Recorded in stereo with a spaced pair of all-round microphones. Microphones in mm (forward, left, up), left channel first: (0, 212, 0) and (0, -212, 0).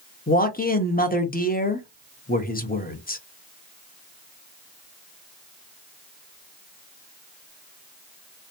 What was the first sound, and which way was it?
A man speaking, 20° left (ahead or behind).